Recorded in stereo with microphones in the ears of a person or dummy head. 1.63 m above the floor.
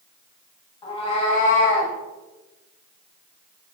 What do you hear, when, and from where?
0.8 s a cat meowing: 25° left (ahead or behind), 1.9 m; by 1.9 s 50° left (ahead or behind), 2 m